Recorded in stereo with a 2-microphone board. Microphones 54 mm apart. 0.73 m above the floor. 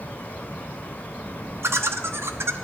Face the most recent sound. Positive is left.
turn(degrees=-55)  # may be behind; listen again after turning